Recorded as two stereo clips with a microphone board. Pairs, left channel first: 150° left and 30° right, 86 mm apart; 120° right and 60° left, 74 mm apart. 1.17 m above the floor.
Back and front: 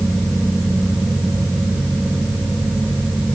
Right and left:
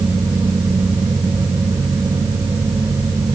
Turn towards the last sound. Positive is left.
No sound to turn to.